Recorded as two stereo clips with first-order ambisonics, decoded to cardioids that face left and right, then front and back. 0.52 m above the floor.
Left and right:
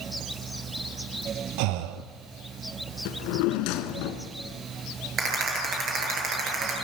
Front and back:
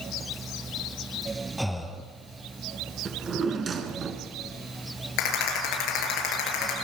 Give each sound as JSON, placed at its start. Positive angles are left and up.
{"t": 1.6, "sound": "breathing", "azimuth_deg": -90, "distance_m": 1.8}
{"t": 3.0, "sound": "a drawer", "azimuth_deg": 110, "distance_m": 2.0}
{"t": 5.2, "sound": "a rattle", "azimuth_deg": -30, "distance_m": 10.0}